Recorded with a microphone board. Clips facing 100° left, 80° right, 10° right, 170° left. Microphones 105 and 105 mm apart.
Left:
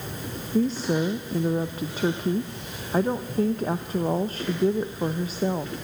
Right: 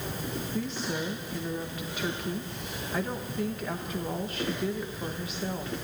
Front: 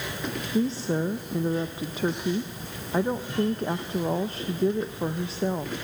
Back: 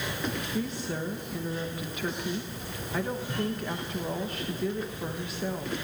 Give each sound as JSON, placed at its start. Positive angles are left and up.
{"t": 0.5, "sound": "a woman speaking", "azimuth_deg": 45, "distance_m": 1.1}